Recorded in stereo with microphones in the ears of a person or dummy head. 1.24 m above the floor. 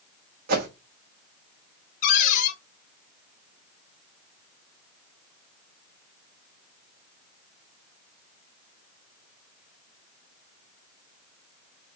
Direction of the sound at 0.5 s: 50° right (ahead or behind).